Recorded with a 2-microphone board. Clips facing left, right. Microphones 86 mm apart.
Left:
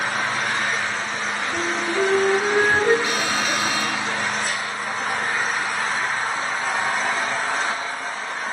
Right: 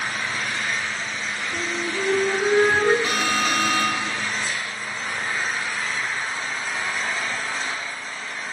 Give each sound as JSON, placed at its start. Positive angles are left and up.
{"t": 0.0, "sound": "an engine running", "side_deg": 65, "distance_m": 4.5}
{"t": 1.5, "sound": "a flute", "side_deg": 15, "distance_m": 6.0}
{"t": 3.0, "sound": "an alarm", "side_deg": -50, "distance_m": 2.5}